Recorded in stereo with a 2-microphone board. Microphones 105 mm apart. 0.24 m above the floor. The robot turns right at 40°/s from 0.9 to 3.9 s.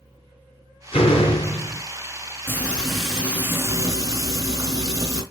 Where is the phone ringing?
I don't hear a phone ringing.